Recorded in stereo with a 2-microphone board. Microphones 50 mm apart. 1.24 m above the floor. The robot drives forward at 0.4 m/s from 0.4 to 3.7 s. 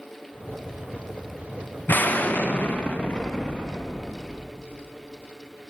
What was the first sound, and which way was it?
An explosion, 40° left (ahead or behind).